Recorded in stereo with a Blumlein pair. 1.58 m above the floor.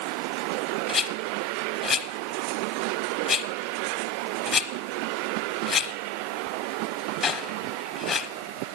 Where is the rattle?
20° left, 0.8 m.